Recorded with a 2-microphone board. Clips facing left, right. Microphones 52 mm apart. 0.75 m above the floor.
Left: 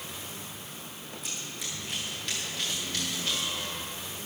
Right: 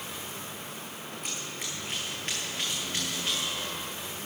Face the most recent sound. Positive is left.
turn(degrees=-25)  # may be behind; listen again after turning